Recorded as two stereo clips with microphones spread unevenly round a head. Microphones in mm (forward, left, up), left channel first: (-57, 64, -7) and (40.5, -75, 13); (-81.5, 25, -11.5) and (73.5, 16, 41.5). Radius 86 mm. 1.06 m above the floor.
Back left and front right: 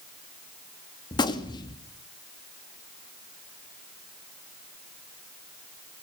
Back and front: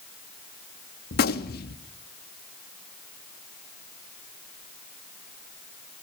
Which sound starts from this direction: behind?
A gunshot, at 1.1 s.